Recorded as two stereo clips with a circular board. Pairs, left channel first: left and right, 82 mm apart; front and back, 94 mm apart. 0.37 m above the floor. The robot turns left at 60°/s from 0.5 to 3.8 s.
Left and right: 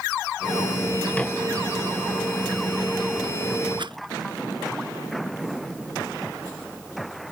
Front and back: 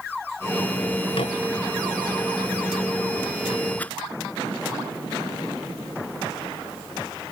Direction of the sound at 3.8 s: 70° right.